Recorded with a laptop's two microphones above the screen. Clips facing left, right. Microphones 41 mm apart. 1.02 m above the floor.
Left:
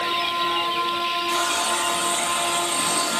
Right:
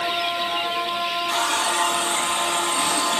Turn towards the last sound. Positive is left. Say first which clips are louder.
# right 3 dB
turn(degrees=-40)  # may be behind; listen again after turning